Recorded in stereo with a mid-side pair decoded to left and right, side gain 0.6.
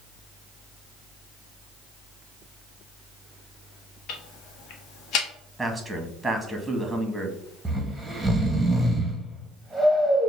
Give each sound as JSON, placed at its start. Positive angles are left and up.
{"t": 4.1, "sound": "ticking", "azimuth_deg": 65, "distance_m": 1.0}
{"t": 5.6, "sound": "a man speaking", "azimuth_deg": -10, "distance_m": 1.4}
{"t": 7.7, "sound": "snoring", "azimuth_deg": -5, "distance_m": 1.3}